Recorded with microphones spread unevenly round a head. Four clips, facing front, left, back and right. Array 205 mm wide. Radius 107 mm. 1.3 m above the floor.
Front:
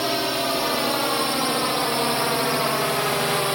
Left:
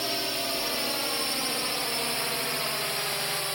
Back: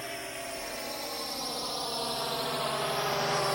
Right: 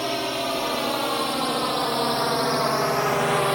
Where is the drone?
20° right; by 3.5 s 60° right.